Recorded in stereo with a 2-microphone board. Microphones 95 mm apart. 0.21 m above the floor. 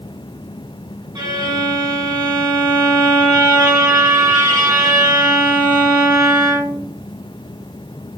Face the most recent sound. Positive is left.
turn(degrees=-45)  # may be behind; listen again after turning